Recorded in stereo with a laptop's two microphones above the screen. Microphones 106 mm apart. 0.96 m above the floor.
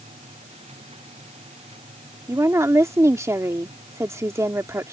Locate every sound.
0.0 s a machine running: 80° right
2.3 s a woman speaking: 25° right (ahead or behind)